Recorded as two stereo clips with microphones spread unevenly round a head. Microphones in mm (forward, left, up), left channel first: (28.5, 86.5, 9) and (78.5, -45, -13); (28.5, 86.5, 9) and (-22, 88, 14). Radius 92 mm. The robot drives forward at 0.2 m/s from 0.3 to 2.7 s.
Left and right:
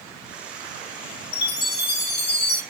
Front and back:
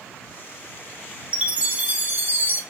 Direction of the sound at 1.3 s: 110° left.